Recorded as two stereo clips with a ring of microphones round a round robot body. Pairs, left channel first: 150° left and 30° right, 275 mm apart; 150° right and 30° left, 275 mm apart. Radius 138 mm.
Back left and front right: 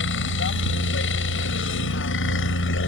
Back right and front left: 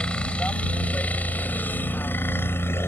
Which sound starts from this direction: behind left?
A helicopter, at 0.0 s.